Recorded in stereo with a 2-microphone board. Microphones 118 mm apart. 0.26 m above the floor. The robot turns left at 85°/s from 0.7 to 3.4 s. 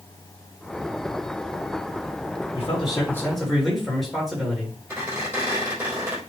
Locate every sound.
2.5 s a man speaking: 70° left, 5 m; by 4.8 s straight ahead, 5 m
4.9 s a squeak: 15° right (ahead or behind), 4 m